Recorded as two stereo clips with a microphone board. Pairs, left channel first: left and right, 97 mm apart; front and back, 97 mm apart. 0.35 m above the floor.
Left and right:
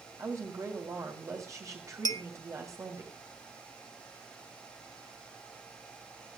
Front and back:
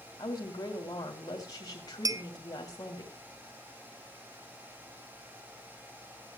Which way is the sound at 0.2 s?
40° right.